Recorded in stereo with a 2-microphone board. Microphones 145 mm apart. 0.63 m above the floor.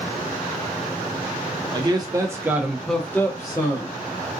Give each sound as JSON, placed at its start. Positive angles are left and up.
{"t": 1.7, "sound": "a man speaking", "side_deg": -35, "distance_m": 1.4}